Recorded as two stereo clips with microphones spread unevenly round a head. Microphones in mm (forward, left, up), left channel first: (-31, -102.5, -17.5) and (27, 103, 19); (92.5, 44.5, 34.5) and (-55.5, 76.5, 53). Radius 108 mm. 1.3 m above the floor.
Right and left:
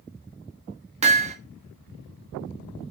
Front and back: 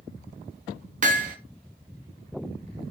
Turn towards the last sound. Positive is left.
turn(degrees=135)